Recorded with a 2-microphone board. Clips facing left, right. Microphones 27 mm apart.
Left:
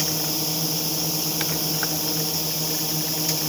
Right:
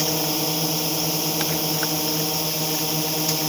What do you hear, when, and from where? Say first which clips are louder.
0.0 s a drone: right 3 dB; 30° right (ahead or behind)